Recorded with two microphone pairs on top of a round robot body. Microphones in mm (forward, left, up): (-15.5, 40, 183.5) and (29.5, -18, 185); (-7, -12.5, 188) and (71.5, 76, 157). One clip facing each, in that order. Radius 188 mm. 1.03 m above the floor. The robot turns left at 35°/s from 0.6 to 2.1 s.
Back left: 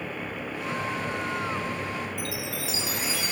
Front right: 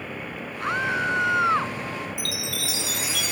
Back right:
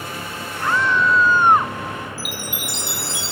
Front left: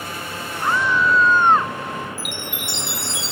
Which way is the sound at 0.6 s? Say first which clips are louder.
Front right 7 dB, even; 20° right.